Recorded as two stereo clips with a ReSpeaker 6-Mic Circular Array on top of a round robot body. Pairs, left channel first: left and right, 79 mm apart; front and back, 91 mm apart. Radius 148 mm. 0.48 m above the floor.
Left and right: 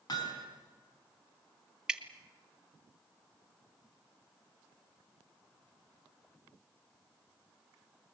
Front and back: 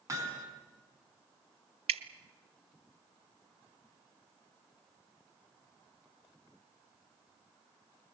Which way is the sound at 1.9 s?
175° right.